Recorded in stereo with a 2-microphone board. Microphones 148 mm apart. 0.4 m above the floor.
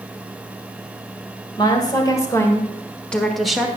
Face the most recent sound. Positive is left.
turn(degrees=-5)  # may be behind; listen again after turning